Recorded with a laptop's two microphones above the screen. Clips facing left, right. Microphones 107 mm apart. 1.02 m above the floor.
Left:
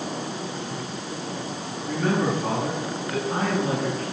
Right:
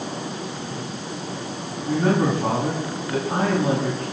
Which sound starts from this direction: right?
A man speaking, at 1.9 s.